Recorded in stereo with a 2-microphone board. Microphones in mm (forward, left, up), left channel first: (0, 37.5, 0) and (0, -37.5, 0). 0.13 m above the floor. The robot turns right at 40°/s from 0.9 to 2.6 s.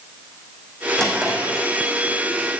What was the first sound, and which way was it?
A drawer, 10° left (ahead or behind).